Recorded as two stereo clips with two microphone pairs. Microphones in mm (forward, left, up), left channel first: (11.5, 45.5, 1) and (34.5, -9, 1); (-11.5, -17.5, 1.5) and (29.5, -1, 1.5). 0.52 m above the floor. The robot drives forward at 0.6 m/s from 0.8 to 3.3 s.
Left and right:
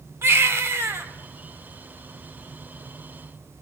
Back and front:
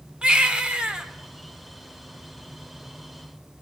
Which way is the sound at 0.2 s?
40° right.